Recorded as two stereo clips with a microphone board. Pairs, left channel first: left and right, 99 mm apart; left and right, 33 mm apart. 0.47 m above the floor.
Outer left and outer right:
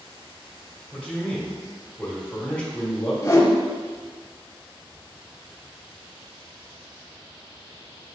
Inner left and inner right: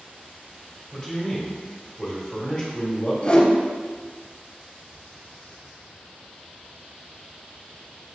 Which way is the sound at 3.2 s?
30° left (ahead or behind).